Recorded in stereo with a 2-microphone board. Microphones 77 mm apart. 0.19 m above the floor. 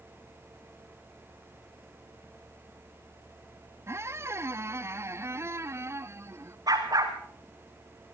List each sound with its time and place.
3.9 s a squeak: 35° right (ahead or behind), 0.6 m
6.7 s a dog barking: 55° right (ahead or behind), 3 m